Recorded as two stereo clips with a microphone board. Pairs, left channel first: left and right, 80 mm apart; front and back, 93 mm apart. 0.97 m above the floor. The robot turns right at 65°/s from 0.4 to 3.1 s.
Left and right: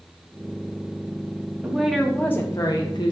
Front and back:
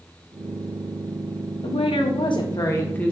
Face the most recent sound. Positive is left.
turn(degrees=80)